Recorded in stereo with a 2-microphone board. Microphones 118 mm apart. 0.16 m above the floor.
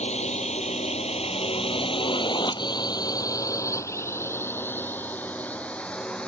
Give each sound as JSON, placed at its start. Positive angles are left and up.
{"t": 0.0, "sound": "a drone", "side_deg": 70}